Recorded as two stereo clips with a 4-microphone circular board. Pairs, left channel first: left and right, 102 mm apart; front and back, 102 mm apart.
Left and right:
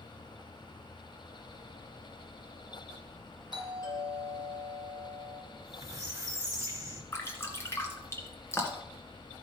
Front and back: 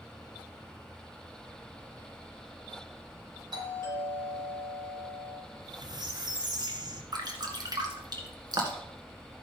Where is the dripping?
150° left, 1.9 m.